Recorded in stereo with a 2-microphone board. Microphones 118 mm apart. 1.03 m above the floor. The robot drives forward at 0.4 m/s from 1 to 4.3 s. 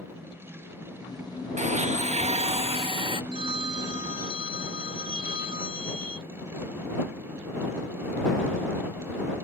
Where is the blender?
80° right; by 3.2 s 45° right (ahead or behind).